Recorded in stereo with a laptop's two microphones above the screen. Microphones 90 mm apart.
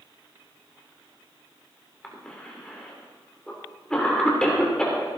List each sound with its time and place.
2.0 s a cough: 10° left (ahead or behind), 3 m